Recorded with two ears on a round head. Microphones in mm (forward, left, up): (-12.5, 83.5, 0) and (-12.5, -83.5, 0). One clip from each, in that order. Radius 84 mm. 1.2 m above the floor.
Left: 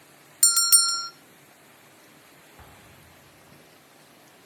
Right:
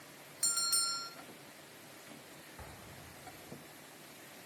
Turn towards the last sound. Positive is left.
turn(degrees=5)  # may be behind; listen again after turning